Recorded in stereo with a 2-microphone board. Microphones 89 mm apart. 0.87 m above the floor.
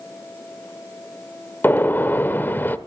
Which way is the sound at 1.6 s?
25° left (ahead or behind).